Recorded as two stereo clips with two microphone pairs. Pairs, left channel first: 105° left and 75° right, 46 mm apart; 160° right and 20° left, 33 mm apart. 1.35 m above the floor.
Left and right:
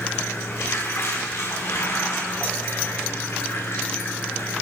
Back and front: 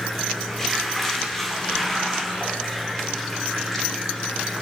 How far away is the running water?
About 4 m.